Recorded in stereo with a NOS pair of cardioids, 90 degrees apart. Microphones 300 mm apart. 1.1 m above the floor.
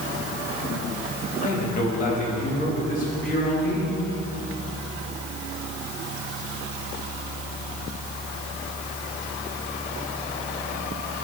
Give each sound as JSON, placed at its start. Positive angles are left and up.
{"t": 1.4, "sound": "a man speaking", "azimuth_deg": 25, "distance_m": 2.5}